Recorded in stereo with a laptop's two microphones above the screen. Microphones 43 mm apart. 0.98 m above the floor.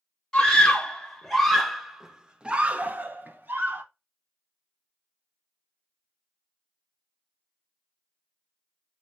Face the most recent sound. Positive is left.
turn(degrees=-50)  # may be behind; listen again after turning